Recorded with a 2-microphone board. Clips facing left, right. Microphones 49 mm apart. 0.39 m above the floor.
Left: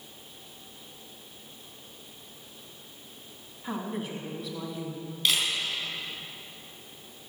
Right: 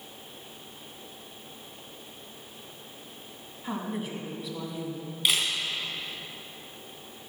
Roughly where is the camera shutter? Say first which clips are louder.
Even; centre.